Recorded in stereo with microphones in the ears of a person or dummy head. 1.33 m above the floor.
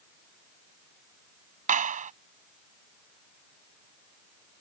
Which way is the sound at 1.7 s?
35° right (ahead or behind).